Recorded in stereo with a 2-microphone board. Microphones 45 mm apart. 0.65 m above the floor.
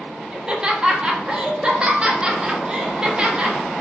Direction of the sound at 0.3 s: 20° right (ahead or behind).